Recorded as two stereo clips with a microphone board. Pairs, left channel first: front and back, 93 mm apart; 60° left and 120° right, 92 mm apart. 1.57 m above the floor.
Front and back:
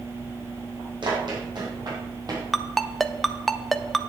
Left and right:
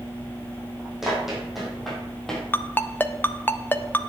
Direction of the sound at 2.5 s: 85° left.